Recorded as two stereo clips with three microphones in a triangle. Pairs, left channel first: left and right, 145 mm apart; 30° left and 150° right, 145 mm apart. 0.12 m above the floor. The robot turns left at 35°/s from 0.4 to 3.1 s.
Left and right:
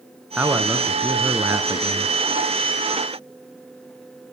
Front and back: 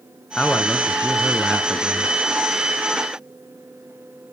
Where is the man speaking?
25° right, 1.0 m; by 2.1 s 90° right, 1.0 m.